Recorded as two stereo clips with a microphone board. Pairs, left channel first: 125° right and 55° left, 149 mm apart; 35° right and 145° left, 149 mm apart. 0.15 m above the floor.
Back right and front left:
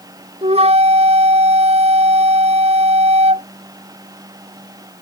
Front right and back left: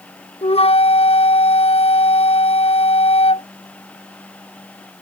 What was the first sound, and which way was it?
A flute, 10° left.